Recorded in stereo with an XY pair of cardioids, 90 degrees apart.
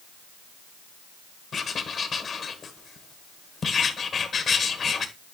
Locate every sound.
1.5 s writing: 55° left, 1.9 m